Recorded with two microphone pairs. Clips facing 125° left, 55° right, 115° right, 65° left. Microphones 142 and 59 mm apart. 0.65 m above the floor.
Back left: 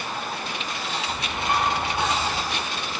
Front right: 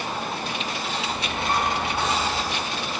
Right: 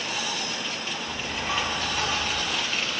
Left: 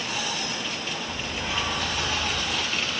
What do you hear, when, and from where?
1.1 s a bird: 160° right, 4 m